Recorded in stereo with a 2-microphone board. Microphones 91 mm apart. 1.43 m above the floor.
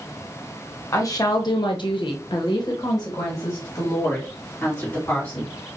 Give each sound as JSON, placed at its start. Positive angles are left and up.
{"t": 0.9, "sound": "a woman speaking", "side_deg": 35, "distance_m": 0.9}